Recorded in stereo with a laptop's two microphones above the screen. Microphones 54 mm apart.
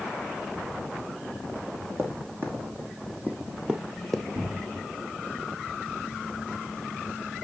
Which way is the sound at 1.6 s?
50° right (ahead or behind).